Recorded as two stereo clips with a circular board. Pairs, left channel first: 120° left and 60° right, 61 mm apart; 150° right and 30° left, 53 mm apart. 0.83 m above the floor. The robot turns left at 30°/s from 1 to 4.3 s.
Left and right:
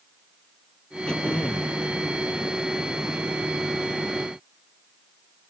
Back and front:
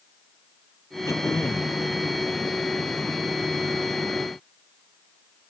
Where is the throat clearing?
165° right; by 1.8 s 175° left.